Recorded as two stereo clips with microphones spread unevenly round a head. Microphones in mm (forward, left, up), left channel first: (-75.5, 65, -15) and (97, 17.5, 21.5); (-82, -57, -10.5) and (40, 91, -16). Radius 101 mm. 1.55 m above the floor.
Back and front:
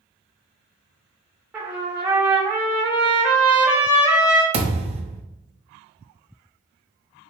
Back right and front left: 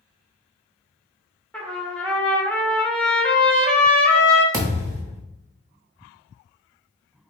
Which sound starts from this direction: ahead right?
A trumpet, at 1.5 s.